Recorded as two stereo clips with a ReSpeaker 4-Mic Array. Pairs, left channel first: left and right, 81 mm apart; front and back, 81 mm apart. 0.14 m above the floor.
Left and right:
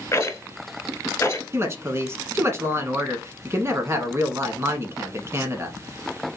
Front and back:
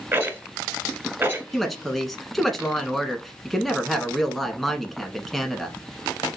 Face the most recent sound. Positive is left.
turn(degrees=-90)